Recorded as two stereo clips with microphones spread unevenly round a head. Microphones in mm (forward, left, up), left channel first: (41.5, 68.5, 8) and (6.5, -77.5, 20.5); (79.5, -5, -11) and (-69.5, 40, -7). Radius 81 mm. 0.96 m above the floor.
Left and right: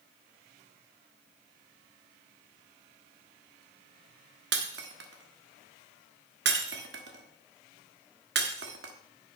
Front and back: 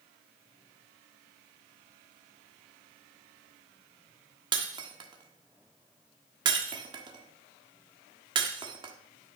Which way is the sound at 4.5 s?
130° right.